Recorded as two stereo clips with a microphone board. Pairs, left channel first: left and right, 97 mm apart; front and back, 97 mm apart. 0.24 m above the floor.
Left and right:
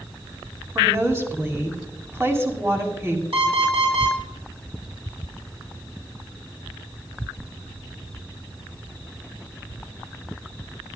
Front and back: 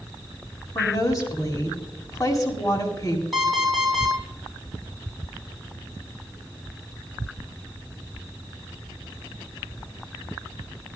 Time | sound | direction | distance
0.8 | a woman speaking | 35° right | 2.5 m
3.3 | an alarm clock | 90° right | 6 m